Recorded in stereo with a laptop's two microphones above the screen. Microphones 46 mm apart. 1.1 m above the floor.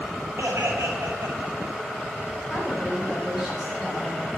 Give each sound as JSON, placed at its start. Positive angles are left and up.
{"t": 0.4, "sound": "laughter", "side_deg": -85, "distance_m": 6.0}
{"t": 2.5, "sound": "a woman speaking", "side_deg": -5, "distance_m": 7.0}